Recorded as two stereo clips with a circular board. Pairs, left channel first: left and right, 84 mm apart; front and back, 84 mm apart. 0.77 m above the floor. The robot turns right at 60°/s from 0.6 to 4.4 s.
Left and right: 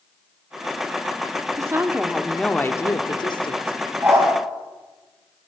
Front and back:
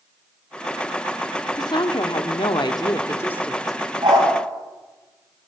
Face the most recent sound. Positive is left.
turn(degrees=-130)